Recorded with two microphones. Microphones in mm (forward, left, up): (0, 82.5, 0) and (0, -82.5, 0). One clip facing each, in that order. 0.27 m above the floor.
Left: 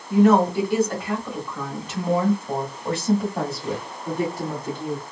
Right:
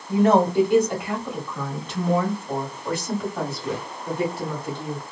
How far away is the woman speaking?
About 1.4 m.